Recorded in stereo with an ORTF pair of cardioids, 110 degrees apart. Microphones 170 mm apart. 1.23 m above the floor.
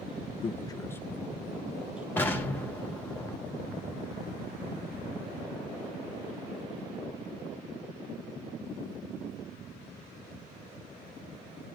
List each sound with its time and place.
0.4 s a man speaking: 35° left, 0.6 m; by 2.1 s 5° right, 1.6 m
2.2 s an explosion: 10° left, 1.4 m